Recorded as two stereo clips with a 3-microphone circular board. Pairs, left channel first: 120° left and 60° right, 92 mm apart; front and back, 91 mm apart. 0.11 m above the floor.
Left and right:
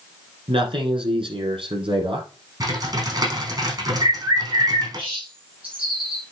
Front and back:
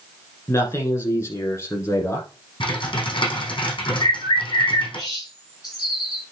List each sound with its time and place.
0.5 s a man speaking: 55° right, 5 m
2.6 s typing on a keyboard: 20° right, 5.5 m
4.0 s a bird: 45° right, 7 m